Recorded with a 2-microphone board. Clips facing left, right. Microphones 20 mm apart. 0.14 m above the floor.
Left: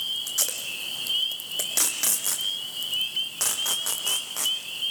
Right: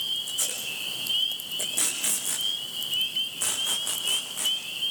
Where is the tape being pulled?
80° left, 5 m.